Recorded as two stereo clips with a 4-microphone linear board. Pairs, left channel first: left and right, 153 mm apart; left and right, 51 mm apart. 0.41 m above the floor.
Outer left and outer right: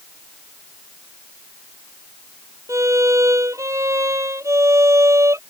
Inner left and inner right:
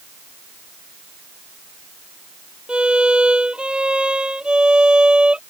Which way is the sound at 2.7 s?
20° right (ahead or behind).